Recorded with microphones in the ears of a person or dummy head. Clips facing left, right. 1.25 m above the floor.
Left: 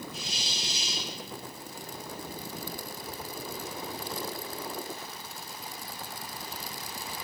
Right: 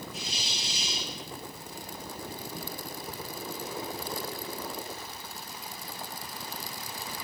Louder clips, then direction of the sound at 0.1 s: Even; 70° left (ahead or behind).